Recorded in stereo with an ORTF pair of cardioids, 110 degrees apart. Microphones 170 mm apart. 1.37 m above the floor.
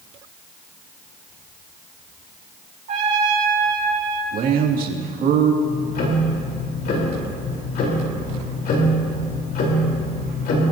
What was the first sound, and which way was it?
A trumpet, 45° right.